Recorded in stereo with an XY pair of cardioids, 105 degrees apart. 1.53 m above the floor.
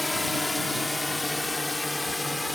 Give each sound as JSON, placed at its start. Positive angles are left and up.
{"t": 0.0, "sound": "a drone", "azimuth_deg": 15}